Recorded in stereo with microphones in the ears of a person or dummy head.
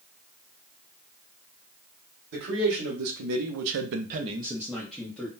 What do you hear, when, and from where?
2.3 s a man speaking: 55° right (ahead or behind), 1.3 m; by 5.3 s 10° left (ahead or behind), 1.0 m